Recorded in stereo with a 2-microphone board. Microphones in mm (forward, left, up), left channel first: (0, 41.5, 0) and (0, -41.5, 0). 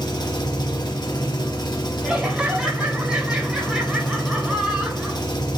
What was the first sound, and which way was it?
An engine running, 60° left (ahead or behind).